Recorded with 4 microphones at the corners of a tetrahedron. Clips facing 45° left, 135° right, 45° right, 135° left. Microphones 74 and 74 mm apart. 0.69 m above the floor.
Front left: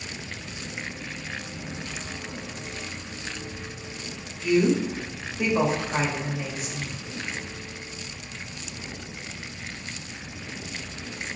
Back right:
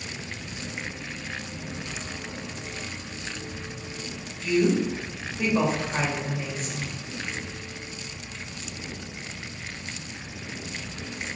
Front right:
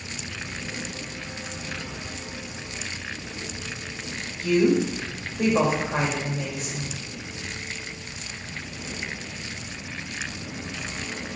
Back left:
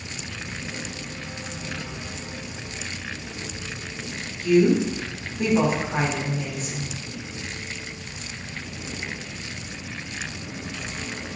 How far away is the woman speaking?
About 3 m.